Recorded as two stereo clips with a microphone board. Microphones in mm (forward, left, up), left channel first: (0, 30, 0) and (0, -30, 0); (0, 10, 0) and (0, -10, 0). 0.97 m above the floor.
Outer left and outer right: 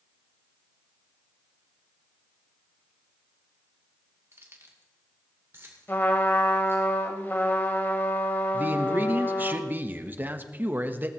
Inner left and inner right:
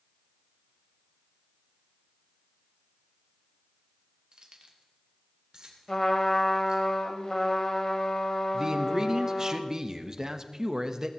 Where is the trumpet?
35° left (ahead or behind), 1.7 m.